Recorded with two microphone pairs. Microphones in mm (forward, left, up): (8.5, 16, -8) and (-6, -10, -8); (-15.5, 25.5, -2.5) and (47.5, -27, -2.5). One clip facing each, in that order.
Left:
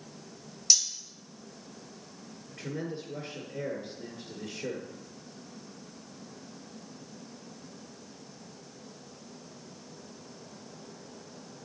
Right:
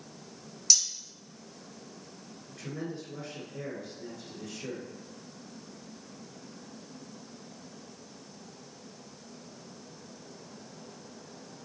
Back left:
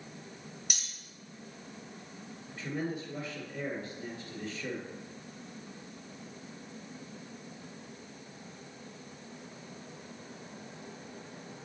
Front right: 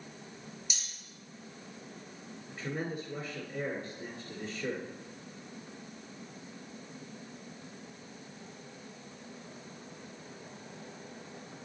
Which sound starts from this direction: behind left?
Cutlery clinking, at 0.7 s.